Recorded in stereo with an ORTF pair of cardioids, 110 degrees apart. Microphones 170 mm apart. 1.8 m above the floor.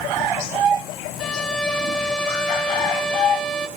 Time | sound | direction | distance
1.2 | a violin | 5° left | 0.5 m